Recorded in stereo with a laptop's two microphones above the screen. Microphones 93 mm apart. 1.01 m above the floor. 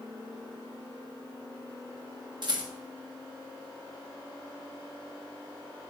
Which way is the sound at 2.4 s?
55° right (ahead or behind).